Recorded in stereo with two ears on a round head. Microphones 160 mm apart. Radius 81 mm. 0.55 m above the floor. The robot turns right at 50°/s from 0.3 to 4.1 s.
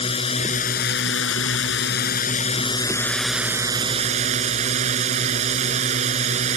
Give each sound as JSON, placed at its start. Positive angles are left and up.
{"t": 0.0, "sound": "a drone", "azimuth_deg": 30}